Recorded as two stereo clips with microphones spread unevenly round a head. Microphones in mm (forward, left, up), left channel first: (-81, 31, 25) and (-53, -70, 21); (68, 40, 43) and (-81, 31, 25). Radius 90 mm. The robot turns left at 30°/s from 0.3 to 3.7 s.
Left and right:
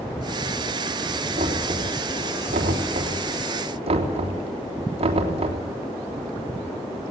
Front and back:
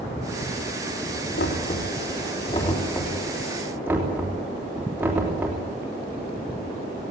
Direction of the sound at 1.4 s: 25° right.